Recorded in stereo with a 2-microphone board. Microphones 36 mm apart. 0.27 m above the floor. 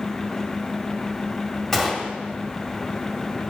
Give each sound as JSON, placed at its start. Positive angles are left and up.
{"t": 1.7, "sound": "a gunshot", "side_deg": 5, "distance_m": 1.0}